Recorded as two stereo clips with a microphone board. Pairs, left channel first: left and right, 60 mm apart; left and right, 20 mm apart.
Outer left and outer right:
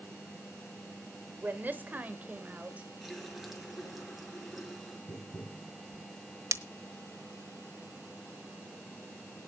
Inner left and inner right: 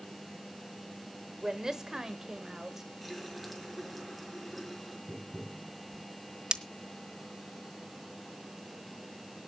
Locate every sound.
1.4 s a woman speaking: 35° right (ahead or behind), 1.5 m; by 2.9 s 25° right (ahead or behind), 2 m
3.0 s a running tap: 5° right (ahead or behind), 4.5 m
5.1 s tapping: 55° left (ahead or behind), 3.5 m
6.5 s breaking glass: 55° right (ahead or behind), 1.0 m